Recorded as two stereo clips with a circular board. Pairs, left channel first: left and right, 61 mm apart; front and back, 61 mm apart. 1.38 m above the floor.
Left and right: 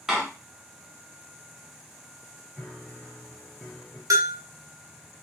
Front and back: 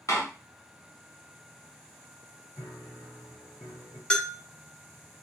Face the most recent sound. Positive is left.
turn(degrees=-80)